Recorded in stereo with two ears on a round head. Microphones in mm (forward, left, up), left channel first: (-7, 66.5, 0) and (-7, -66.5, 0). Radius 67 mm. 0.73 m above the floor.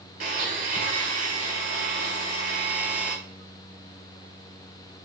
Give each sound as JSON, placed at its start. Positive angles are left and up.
{"t": 0.2, "sound": "a blender", "side_deg": -50, "distance_m": 3.0}